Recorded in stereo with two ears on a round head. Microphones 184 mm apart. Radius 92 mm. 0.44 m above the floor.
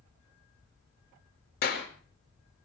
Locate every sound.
1.6 s a clap: 50° left (ahead or behind), 5.5 m